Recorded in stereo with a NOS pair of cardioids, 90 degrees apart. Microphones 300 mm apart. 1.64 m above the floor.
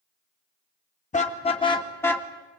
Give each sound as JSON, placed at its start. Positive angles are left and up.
{"t": 1.1, "sound": "a car horn", "azimuth_deg": 25, "distance_m": 3.0}